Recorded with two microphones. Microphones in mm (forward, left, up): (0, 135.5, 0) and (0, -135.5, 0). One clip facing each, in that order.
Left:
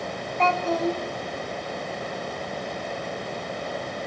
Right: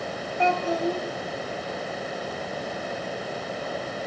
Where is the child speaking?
15° right (ahead or behind), 0.9 m.